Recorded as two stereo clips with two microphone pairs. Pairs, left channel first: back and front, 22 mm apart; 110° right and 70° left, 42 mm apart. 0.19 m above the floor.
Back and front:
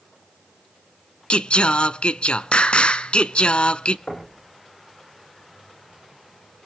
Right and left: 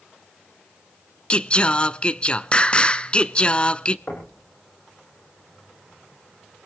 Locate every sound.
1.3 s singing: 165° right, 0.5 m
4.1 s knocking: 150° right, 5.5 m